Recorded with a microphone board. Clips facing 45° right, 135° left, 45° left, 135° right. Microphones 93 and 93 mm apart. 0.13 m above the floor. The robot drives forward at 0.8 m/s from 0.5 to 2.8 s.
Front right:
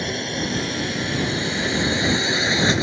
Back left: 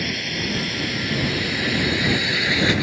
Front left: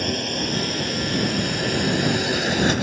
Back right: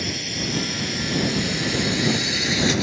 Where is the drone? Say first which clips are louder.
Front right 2 dB, front left 4 dB; 15° left; by 2.8 s 20° left.